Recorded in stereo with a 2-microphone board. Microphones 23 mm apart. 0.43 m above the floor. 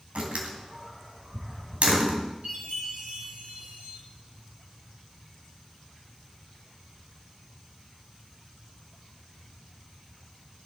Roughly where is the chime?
Right.